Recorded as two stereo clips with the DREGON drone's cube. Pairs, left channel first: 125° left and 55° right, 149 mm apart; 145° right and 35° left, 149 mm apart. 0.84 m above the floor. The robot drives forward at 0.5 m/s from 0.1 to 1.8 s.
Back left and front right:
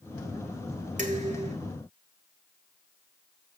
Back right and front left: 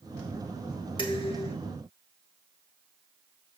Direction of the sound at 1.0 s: 90° right.